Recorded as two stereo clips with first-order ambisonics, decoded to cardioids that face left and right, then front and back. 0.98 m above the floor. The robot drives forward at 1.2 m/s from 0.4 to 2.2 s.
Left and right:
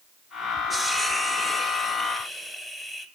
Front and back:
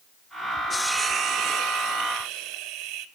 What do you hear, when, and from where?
0.7 s a hiss: 25° right, 0.6 m; by 3.0 s 175° right, 1.7 m